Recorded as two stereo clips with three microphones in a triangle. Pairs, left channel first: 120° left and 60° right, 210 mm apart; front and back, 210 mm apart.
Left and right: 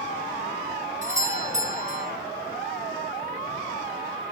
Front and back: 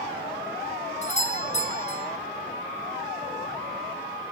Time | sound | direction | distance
1.0 | a doorbell | 35° right | 1.4 m